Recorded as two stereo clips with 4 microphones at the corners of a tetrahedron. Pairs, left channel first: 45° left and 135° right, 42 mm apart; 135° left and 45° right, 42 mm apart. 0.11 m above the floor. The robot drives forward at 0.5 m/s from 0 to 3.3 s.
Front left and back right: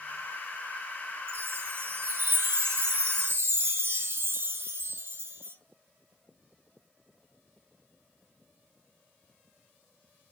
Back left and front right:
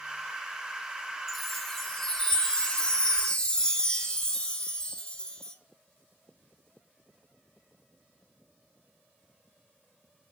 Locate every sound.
1.3 s a chime: 135° right, 1.3 m; by 5.5 s 155° right, 2 m